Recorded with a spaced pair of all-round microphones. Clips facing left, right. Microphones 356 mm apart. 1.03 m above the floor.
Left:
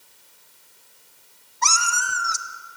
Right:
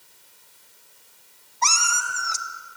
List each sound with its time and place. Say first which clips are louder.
1.6 s a cat meowing: left 1 dB; 20° left (ahead or behind), 1.0 m